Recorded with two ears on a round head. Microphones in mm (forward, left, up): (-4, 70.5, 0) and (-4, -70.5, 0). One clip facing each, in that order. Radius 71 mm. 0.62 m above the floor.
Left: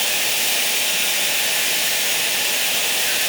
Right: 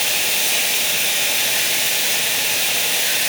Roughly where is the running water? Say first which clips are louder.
Right 1 dB; centre.